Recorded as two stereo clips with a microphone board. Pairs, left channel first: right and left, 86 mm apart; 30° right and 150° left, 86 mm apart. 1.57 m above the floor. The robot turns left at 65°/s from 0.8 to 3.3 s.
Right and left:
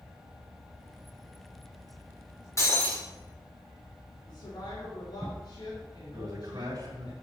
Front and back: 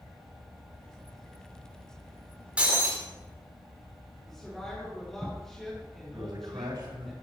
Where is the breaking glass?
135° right, 2 m; by 3.0 s 165° right, 2 m.